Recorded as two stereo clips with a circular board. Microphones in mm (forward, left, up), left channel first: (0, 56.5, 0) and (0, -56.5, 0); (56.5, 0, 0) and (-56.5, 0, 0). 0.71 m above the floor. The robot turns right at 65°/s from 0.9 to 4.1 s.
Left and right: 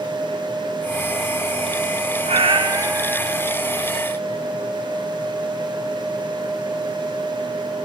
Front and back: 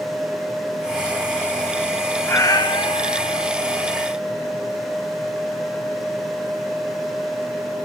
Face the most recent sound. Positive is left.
turn(degrees=50)